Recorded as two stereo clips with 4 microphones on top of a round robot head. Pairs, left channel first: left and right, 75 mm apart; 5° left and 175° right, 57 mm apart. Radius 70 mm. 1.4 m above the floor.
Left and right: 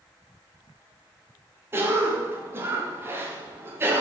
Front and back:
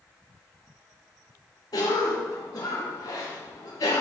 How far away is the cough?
About 0.6 m.